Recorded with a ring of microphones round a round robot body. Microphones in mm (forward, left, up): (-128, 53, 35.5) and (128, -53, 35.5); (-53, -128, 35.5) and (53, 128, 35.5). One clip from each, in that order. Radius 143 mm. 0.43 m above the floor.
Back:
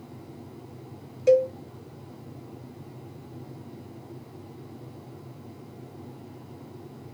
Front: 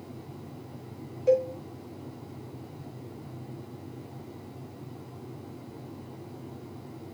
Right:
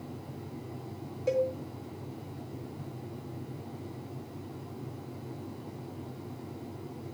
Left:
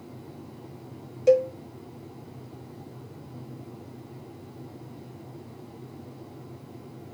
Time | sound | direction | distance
1.3 | a cowbell | 115° left | 1.6 m